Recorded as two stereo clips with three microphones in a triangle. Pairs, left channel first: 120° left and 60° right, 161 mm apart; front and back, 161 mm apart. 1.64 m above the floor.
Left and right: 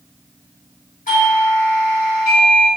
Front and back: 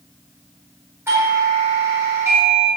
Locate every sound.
1.1 s a doorbell: 110° left, 1.1 m